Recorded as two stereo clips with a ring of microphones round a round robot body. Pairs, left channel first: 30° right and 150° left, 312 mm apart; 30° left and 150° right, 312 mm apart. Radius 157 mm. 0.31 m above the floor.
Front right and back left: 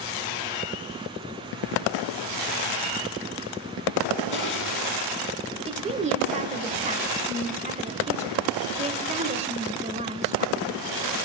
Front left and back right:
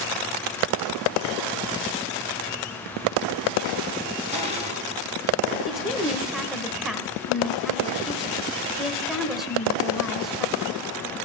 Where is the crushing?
80° right, 3.5 m.